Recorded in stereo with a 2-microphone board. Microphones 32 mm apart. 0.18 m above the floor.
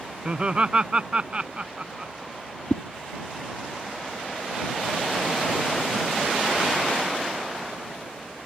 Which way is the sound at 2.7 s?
45° left (ahead or behind).